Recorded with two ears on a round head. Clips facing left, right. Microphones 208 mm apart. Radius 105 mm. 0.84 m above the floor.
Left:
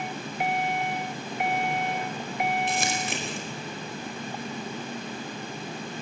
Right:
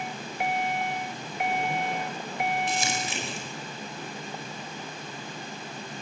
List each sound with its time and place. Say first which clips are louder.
2.7 s crumpling: left 2 dB; 50° left (ahead or behind), 4.5 m